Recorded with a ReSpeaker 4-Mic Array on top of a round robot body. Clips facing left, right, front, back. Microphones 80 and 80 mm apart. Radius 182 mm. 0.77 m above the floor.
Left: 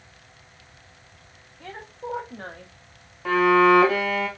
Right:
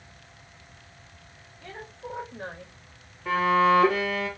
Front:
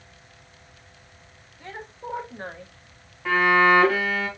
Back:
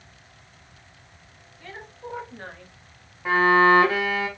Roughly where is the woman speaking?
Left.